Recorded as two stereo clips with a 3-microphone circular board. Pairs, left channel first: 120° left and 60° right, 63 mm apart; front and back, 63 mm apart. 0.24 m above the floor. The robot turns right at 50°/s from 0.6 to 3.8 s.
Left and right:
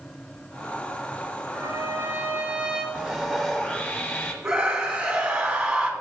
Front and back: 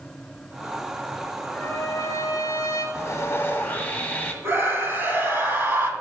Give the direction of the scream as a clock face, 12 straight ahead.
4 o'clock.